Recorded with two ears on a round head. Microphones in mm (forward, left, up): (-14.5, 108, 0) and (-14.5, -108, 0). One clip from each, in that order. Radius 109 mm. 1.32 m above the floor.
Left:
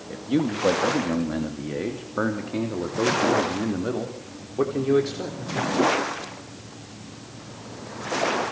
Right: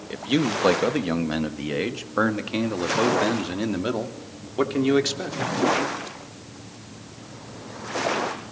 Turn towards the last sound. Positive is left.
turn(degrees=-60)  # may be behind; listen again after turning